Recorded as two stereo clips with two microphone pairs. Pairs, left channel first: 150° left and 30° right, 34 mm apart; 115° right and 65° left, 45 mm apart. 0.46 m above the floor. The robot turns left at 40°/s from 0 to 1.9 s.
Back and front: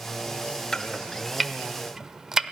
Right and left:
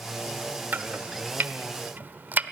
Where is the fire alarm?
No fire alarm in this recording.